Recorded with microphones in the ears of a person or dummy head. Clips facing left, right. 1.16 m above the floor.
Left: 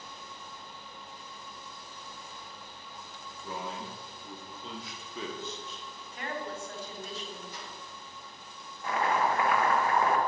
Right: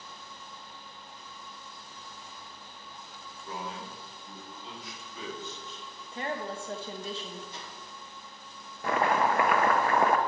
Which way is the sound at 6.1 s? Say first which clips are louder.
Right 3 dB; 25° right (ahead or behind).